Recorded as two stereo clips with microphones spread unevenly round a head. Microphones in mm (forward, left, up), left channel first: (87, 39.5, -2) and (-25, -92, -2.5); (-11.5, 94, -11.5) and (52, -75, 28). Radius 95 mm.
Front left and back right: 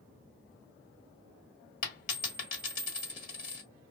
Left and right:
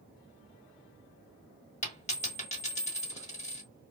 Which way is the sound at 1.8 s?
55° left.